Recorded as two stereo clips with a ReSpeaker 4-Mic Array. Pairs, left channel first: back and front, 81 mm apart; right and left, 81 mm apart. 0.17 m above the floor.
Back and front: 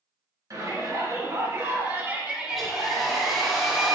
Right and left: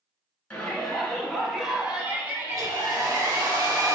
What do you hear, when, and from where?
0.5 s a shout: 15° right, 1.6 m; by 3.5 s 105° left, 1.4 m
2.5 s a hair dryer: 90° left, 1.6 m